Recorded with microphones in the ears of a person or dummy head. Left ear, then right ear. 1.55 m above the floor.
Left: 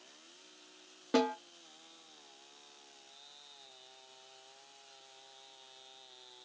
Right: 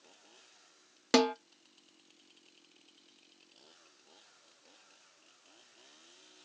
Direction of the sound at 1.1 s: 75° right (ahead or behind).